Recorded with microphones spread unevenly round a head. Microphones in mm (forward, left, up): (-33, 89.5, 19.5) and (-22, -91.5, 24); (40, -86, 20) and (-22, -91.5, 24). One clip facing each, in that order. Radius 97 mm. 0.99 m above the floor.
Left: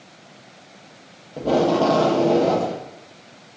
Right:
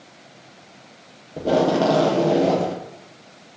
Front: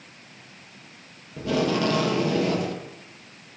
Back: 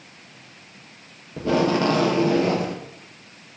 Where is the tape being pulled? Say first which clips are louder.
Even, back 3 dB; 160° right, 0.5 m.